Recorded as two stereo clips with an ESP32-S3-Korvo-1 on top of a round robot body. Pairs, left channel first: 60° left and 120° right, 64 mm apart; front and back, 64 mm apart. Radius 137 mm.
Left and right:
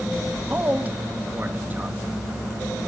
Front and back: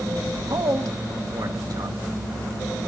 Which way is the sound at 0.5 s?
Straight behind.